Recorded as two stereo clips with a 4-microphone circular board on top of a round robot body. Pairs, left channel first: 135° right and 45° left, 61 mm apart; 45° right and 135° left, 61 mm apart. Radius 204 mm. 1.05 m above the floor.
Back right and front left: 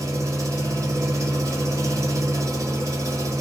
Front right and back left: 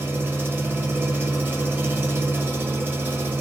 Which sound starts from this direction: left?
An engine running, at 0.0 s.